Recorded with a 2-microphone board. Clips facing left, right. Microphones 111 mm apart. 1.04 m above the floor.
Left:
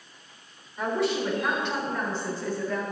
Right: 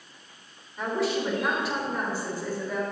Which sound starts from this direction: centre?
A woman speaking, at 0.8 s.